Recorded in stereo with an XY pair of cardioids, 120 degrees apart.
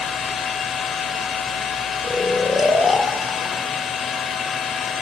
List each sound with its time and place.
0.0 s a machine running: 50° left, 2 m
2.0 s snoring: 15° left, 1.2 m